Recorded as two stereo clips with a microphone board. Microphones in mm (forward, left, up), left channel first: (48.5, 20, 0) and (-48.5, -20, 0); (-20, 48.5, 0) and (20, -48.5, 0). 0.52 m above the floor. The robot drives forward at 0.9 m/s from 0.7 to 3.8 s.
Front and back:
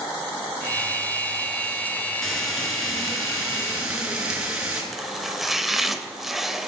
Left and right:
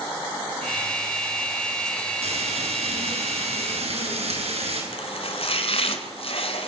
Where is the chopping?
115° left, 2.5 m.